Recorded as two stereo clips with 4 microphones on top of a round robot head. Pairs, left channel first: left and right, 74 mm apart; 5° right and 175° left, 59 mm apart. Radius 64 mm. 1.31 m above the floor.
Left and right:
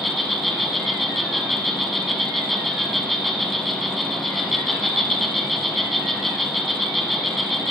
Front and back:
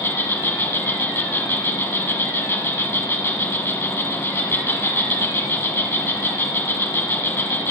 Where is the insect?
5° left, 1.2 m.